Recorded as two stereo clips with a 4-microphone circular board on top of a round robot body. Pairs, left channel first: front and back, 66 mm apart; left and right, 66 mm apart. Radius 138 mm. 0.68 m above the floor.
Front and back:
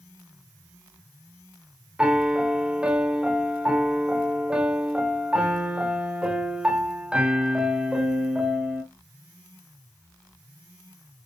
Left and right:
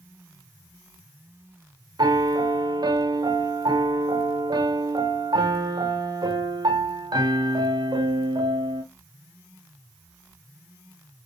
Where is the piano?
100° right, 1.8 m.